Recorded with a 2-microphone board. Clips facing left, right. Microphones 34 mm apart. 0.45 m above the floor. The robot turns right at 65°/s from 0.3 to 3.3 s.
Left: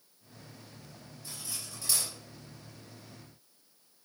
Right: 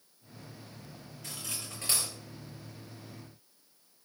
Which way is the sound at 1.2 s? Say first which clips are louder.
Right 2 dB; 85° right.